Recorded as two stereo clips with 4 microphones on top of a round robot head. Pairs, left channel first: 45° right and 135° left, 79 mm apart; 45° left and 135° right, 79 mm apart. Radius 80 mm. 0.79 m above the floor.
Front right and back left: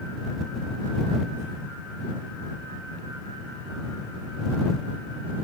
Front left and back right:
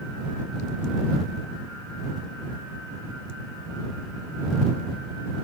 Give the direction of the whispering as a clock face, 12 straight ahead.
No whispering in this recording.